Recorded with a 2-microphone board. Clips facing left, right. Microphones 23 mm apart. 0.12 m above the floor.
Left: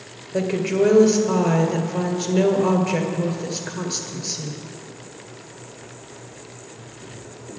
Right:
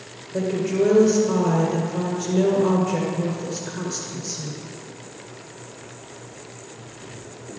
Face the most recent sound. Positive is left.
turn(degrees=55)  # may be behind; listen again after turning